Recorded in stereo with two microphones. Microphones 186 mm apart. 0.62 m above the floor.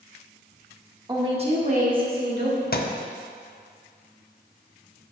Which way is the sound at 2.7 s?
55° left (ahead or behind).